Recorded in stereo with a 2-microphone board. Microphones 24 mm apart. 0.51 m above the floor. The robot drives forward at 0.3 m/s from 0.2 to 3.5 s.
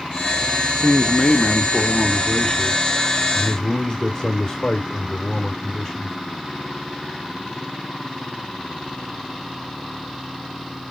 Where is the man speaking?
35° left (ahead or behind), 0.8 m; by 6.2 s 20° left (ahead or behind), 1.3 m.